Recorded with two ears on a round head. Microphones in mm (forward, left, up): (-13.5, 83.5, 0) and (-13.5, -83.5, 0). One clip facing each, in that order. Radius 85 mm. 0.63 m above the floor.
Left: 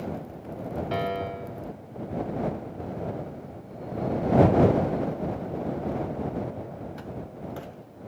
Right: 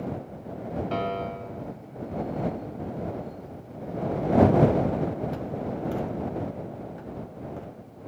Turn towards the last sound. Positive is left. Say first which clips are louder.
# left 1 dB
turn(degrees=10)  # may be behind; listen again after turning